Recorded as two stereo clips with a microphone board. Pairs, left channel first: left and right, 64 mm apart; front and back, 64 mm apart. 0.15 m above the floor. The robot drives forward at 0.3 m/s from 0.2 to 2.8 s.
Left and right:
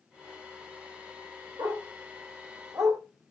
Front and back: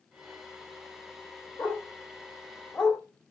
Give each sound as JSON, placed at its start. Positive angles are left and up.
{"t": 1.6, "sound": "a dog barking", "azimuth_deg": -60, "distance_m": 2.0}